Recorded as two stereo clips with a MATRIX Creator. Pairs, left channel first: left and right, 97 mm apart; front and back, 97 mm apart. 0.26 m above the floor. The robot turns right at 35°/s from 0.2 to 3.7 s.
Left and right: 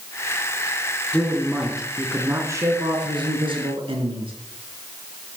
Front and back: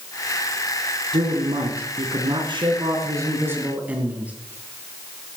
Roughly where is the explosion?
No explosion in this recording.